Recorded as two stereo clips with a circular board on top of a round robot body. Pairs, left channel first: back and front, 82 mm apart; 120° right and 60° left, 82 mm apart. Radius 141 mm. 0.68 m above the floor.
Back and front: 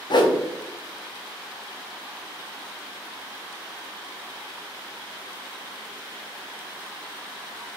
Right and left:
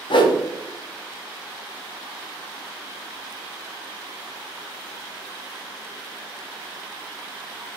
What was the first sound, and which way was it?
A whoosh, 150° right.